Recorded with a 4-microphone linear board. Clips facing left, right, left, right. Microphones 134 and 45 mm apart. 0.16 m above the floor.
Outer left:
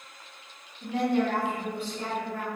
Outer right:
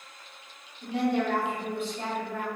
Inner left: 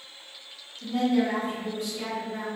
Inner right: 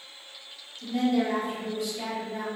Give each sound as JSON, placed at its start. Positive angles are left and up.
{"t": 0.8, "sound": "a woman speaking", "side_deg": 45, "distance_m": 1.7}